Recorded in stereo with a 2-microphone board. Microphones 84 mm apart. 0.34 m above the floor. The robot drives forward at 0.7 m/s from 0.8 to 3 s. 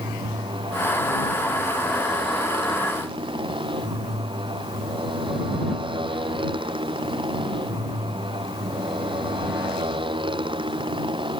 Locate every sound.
0.0 s a motorcycle: 90° right; by 11.4 s 80° right